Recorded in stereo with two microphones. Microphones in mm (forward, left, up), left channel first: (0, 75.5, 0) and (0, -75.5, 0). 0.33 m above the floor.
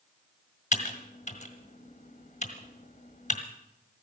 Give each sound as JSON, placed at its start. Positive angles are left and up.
{"t": 0.7, "sound": "typing on a keyboard", "side_deg": 55, "distance_m": 1.6}